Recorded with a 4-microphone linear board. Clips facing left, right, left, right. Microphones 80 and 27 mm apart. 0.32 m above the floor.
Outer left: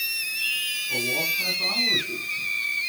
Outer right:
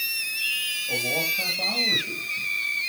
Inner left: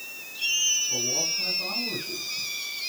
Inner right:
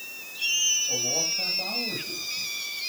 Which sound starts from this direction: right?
A man speaking, at 0.9 s.